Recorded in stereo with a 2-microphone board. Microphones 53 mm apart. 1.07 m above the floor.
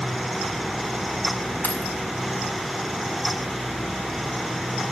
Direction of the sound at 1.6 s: 35° left (ahead or behind).